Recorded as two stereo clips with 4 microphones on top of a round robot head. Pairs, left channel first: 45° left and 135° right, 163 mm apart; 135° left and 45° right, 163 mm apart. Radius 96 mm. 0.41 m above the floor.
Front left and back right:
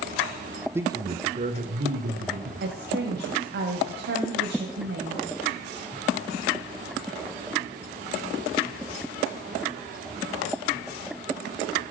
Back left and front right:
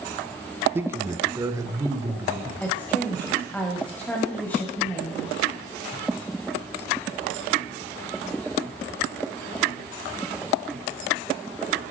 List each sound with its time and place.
0.8 s a man speaking: 90° right, 1.1 m; by 2.5 s 115° right, 2.5 m
2.6 s a woman speaking: 145° right, 2 m